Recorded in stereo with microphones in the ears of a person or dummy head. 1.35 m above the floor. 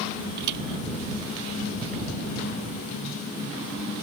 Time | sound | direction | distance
0.4 | a thud | 65° right (ahead or behind) | ?